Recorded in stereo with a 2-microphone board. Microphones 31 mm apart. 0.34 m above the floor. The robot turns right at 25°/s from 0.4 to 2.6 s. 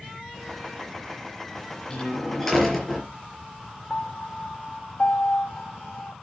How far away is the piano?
About 0.8 m.